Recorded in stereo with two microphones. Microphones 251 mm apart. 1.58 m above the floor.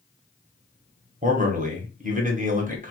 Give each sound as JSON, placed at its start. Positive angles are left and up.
{"t": 1.2, "sound": "a man speaking", "side_deg": -30, "distance_m": 0.8}